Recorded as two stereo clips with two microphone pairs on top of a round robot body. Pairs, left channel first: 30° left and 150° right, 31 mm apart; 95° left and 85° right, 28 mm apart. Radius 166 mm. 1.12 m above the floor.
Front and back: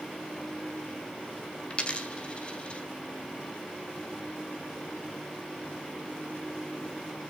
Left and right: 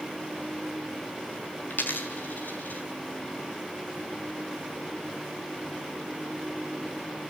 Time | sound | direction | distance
1.7 | a dropped coin | 85° left | 1.8 m